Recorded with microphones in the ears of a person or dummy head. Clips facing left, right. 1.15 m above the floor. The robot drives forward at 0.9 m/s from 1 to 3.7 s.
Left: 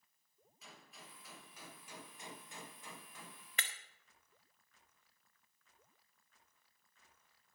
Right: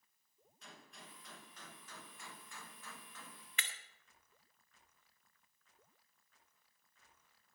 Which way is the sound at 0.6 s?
5° left (ahead or behind).